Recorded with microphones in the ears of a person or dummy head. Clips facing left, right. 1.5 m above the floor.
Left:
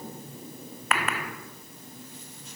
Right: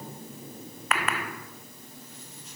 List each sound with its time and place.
Only background noise.